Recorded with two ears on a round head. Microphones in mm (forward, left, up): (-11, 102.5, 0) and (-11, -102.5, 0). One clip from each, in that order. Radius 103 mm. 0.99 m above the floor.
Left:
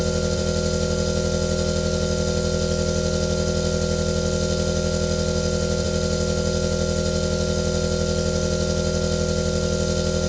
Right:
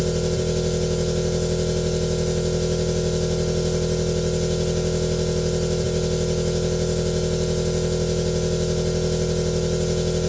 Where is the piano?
No piano in this recording.